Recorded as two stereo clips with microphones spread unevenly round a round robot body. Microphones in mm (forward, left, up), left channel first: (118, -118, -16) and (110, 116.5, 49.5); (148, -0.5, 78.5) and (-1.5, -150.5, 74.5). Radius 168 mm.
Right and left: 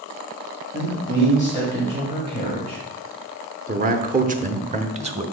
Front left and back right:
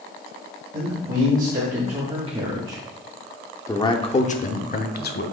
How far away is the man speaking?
About 1.9 m.